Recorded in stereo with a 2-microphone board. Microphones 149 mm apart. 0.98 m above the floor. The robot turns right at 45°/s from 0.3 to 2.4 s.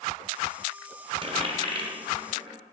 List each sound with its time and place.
1.2 s a dropped coin: 35° right (ahead or behind), 1.2 m